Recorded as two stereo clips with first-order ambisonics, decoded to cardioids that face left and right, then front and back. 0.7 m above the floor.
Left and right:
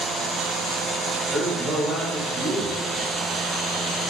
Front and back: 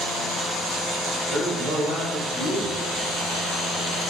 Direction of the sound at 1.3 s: Straight behind.